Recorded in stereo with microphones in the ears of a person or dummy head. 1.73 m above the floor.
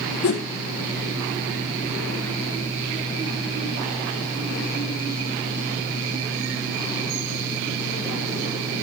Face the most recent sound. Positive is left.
turn(degrees=60)  # may be behind; listen again after turning